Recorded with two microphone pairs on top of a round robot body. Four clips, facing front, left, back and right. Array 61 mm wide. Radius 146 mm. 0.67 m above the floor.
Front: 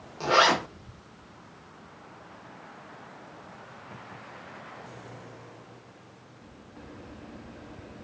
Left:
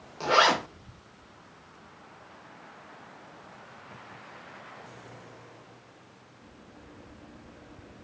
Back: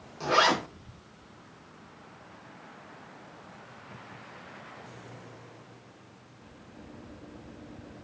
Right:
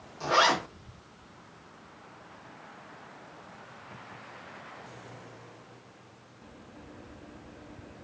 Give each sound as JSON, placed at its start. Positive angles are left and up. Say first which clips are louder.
{"t": 0.2, "sound": "a zipper", "louder": "left 2 dB, front 2 dB", "azimuth_deg": 70, "distance_m": 1.4}